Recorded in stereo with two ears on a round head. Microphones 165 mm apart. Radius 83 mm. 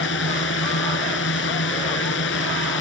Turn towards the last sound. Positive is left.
turn(degrees=70)  # may be behind; listen again after turning